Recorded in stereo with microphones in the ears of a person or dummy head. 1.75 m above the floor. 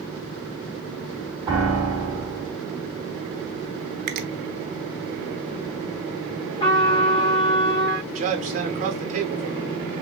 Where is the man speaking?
35° right (ahead or behind), 1.2 m.